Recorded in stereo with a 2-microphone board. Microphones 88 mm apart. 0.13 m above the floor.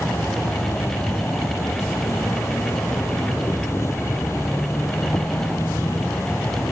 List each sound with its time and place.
0.0 s an insect: 35° left (ahead or behind), 0.7 m